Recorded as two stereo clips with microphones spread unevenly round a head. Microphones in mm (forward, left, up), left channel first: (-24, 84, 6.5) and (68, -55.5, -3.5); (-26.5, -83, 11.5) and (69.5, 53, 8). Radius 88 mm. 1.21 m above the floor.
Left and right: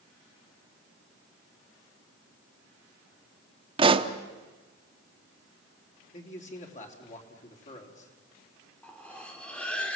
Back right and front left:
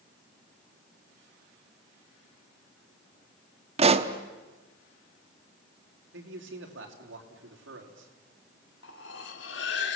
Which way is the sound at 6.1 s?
75° left.